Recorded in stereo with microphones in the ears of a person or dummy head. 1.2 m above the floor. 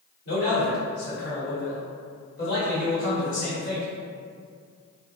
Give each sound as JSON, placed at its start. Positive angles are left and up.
{"t": 0.2, "sound": "a man speaking", "side_deg": 50, "distance_m": 1.5}